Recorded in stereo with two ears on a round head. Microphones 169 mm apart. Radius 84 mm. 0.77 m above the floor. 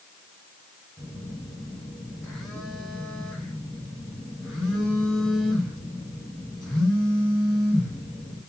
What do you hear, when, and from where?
1.0 s a phone buzzing: centre (ahead or behind), 1.2 m